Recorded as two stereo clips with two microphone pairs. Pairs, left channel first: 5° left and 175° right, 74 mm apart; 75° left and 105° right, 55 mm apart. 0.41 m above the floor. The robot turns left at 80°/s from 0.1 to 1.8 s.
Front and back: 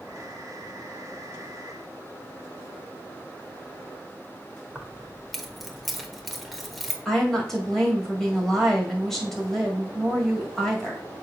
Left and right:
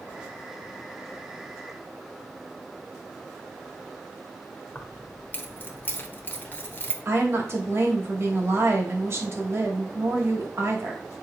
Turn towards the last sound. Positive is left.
turn(degrees=-75)